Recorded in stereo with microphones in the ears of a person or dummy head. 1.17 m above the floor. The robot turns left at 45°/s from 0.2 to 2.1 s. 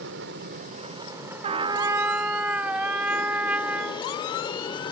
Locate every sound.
0.0 s an aircraft: 115° right; by 4.9 s 155° left
1.4 s a trumpet: 140° right; by 4.1 s 170° right